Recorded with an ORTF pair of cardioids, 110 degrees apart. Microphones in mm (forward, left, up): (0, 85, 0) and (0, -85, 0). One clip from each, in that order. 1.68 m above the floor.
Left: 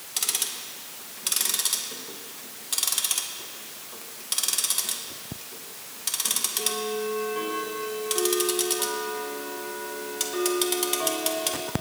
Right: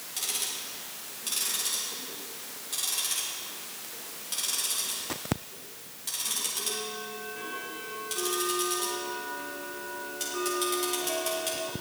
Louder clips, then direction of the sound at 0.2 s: Left 4 dB; 50° left.